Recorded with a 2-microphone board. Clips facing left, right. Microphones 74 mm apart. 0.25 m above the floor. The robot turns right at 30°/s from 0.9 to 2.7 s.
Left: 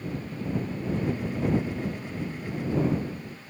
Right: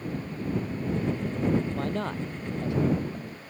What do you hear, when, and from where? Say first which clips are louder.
1.8 s a man speaking: right 3 dB; 80° right; by 3.4 s 70° right (ahead or behind)